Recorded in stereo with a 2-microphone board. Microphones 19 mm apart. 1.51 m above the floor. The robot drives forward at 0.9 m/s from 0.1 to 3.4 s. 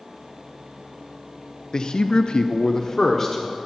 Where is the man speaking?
40° left (ahead or behind), 0.7 m; by 3.6 s 25° left (ahead or behind), 1.2 m.